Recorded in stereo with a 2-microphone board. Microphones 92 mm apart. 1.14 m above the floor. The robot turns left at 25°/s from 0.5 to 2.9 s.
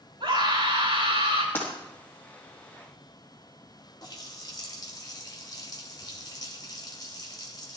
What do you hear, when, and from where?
0.2 s a scream: 70° right (ahead or behind), 7 m; by 1.4 s 85° right, 7 m
1.6 s breaking glass: 20° left (ahead or behind), 4.5 m; by 1.7 s 25° left (ahead or behind), 4.5 m
4.0 s a running tap: 45° left (ahead or behind), 2.5 m